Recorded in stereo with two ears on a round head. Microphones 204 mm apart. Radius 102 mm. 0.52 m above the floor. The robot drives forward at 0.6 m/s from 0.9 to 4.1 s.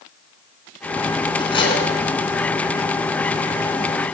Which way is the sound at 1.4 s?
20° left (ahead or behind).